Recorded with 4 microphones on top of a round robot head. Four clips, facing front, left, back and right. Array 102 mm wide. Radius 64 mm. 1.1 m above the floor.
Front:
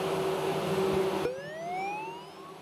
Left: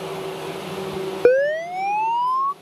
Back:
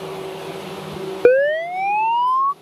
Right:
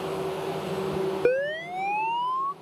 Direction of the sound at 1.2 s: 155° left.